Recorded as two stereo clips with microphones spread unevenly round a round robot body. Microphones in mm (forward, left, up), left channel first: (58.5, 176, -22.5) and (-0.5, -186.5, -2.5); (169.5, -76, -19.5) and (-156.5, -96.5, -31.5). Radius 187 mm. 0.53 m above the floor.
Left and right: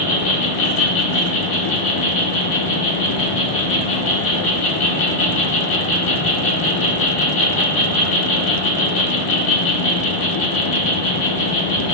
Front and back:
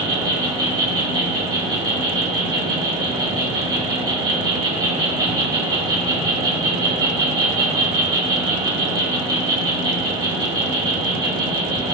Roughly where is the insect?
Behind left.